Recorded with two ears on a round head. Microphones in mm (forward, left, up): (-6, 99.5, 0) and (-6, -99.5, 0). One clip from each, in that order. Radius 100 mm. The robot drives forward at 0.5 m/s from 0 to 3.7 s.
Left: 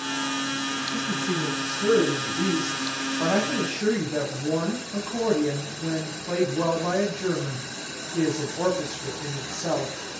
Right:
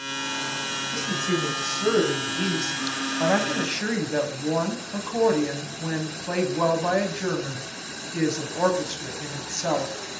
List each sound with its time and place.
0.9 s a woman speaking: 40° right (ahead or behind), 7 m; by 9.9 s 50° right (ahead or behind), 6 m